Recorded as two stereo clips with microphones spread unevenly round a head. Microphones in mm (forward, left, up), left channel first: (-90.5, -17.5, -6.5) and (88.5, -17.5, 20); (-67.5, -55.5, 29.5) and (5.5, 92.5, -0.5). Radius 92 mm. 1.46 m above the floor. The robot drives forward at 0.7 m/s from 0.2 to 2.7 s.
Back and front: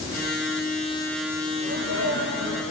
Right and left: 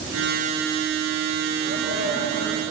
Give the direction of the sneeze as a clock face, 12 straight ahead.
11 o'clock.